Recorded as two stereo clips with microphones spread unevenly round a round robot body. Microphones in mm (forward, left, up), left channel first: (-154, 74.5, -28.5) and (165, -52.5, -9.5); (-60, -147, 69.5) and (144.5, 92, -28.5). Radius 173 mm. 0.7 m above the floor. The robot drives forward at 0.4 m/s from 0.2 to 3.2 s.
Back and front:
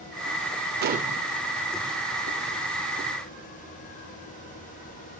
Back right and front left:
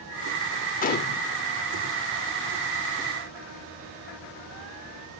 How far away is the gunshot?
About 0.5 m.